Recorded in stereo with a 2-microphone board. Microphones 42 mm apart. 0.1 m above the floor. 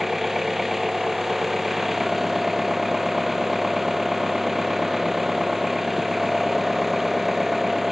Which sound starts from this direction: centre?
An engine running, at 0.0 s.